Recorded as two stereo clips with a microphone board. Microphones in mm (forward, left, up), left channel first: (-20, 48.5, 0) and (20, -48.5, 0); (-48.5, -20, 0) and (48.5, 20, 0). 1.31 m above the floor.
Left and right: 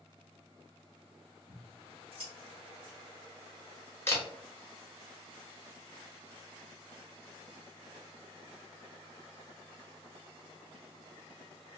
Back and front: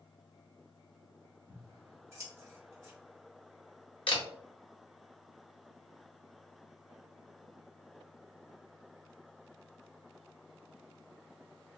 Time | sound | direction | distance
1.5 | scissors | 40° right | 1.4 m
4.1 | a camera shutter | 175° left | 1.1 m